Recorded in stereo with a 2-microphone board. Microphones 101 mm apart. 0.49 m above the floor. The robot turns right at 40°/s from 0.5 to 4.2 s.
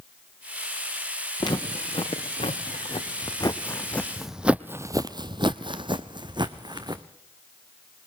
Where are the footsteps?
45° left (ahead or behind), 3 m; by 7.0 s 45° right (ahead or behind), 1.9 m.